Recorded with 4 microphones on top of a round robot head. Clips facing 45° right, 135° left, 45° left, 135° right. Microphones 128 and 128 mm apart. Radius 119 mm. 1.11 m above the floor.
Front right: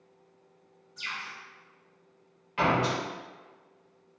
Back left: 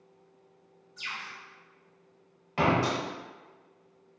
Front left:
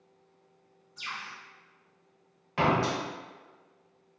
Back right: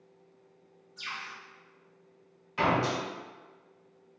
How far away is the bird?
About 1.5 m.